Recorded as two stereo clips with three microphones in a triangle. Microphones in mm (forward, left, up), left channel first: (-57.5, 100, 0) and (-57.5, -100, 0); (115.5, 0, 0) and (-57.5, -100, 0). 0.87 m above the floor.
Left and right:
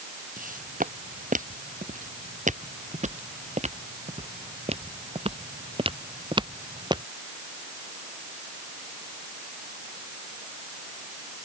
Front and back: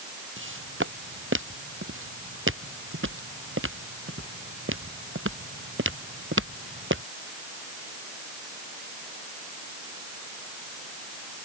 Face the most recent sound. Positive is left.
turn(degrees=-160)